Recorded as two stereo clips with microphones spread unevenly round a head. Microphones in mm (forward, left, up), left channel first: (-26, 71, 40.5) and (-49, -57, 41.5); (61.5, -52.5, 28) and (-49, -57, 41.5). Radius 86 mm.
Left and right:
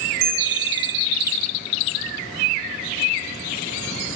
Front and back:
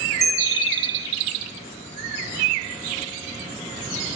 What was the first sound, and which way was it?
A bell, 85° right.